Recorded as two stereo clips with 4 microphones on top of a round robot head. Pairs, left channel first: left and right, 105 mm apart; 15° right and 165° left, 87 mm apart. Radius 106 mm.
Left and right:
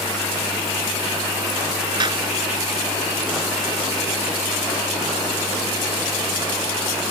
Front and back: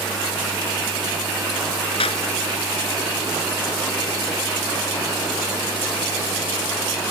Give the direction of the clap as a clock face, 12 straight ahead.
1 o'clock.